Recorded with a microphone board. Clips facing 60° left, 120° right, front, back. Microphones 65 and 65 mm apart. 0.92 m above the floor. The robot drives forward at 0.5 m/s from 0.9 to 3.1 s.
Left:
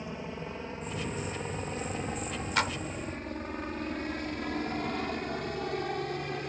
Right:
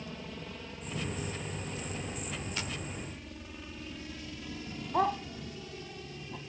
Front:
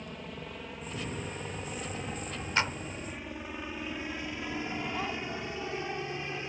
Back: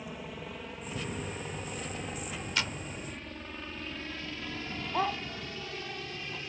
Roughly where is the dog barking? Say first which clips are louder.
Right 3 dB, back 3 dB; behind right.